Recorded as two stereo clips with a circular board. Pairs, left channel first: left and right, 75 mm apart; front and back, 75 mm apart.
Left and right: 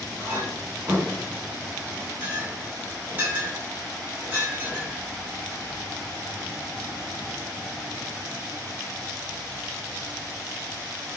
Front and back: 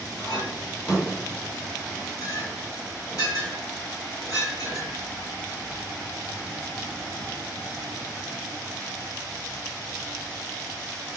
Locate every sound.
0.2 s a clink: 30° right, 2 m